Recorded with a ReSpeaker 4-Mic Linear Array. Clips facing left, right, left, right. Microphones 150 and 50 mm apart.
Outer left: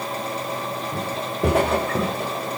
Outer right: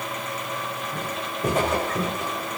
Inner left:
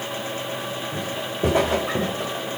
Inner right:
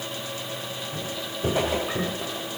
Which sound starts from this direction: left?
Footsteps, at 0.9 s.